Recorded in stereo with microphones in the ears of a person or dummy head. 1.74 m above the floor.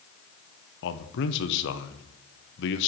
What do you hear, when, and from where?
0.8 s a man speaking: 60° left (ahead or behind), 0.9 m